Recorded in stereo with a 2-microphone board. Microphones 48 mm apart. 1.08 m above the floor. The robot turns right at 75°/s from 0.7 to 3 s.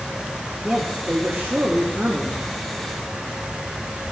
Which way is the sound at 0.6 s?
135° right.